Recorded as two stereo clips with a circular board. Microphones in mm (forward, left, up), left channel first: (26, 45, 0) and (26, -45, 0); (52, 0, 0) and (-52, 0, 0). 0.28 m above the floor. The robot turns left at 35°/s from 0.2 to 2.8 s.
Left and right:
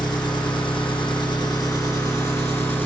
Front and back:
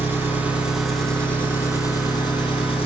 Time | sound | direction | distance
0.0 | an engine running | 115° left | 2.5 m